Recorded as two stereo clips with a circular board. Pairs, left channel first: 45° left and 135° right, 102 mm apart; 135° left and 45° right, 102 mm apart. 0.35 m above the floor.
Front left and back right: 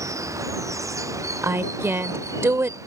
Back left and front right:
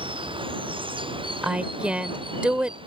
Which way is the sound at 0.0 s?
75° right.